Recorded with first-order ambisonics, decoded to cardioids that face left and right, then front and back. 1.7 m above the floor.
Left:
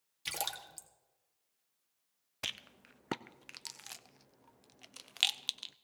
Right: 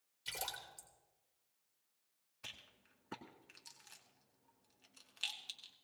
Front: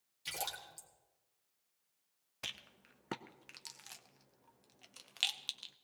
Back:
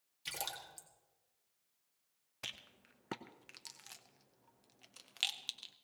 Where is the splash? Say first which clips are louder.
Left 5 dB, front 1 dB; 95° left, 1.7 m.